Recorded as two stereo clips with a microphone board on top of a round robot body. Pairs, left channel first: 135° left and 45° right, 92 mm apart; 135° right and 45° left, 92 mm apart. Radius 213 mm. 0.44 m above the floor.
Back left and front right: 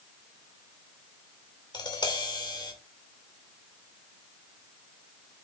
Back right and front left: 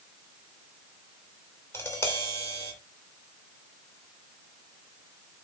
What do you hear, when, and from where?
1.7 s tapping: 160° left, 3 m